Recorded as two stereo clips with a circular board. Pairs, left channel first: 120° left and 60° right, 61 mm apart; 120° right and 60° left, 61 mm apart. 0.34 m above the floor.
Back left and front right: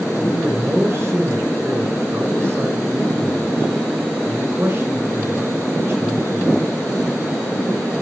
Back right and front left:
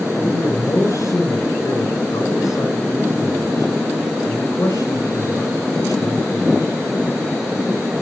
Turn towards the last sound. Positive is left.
turn(degrees=-110)